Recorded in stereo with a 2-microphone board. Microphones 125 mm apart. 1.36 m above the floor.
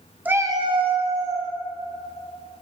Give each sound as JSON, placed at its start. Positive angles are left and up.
{"t": 0.2, "sound": "a cat meowing", "side_deg": -10, "distance_m": 0.6}